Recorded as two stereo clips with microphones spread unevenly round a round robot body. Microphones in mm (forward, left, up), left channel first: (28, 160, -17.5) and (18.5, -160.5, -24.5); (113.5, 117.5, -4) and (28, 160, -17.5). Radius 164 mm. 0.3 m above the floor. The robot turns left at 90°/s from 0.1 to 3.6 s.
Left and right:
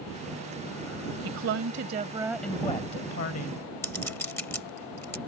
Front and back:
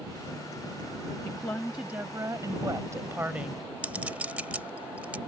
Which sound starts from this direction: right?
A woman speaking, at 1.2 s.